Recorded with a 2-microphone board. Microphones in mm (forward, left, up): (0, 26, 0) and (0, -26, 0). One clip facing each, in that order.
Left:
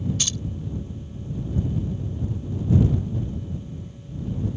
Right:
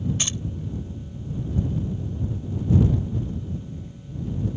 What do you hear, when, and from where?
0.2 s keys jangling: 30° right (ahead or behind)